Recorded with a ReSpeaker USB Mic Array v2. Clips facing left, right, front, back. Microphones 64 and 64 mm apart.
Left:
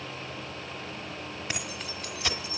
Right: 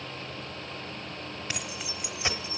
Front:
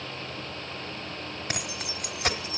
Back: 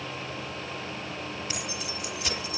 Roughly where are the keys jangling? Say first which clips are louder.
Left 1 dB, even; ahead.